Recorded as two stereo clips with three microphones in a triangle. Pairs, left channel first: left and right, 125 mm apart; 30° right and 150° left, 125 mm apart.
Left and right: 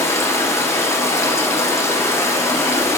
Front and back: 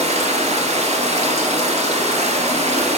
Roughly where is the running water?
Behind left.